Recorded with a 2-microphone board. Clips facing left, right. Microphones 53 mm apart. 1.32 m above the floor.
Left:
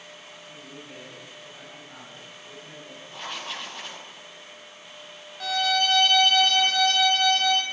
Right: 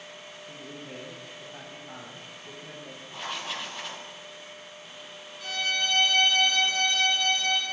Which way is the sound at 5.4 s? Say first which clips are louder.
Left 5 dB; 70° left (ahead or behind).